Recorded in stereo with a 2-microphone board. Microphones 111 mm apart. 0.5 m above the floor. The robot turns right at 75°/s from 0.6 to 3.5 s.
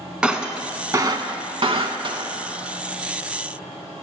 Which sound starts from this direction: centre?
Breaking glass, at 0.2 s.